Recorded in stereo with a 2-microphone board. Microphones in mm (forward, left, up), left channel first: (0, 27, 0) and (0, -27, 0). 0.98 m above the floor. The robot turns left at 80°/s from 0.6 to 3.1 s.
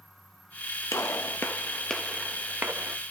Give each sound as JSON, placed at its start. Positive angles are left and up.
{"t": 0.9, "sound": "a gunshot", "side_deg": 65, "distance_m": 1.2}